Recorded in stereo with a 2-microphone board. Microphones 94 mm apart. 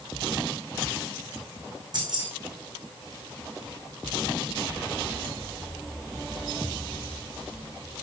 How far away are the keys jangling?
About 4.5 m.